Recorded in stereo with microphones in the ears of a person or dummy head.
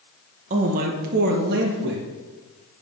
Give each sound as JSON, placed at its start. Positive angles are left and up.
{"t": 0.5, "sound": "a man speaking", "side_deg": -40, "distance_m": 1.2}